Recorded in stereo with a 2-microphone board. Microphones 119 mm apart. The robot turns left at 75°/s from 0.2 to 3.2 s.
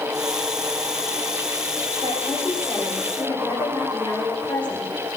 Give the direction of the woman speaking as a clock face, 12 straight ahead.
4 o'clock.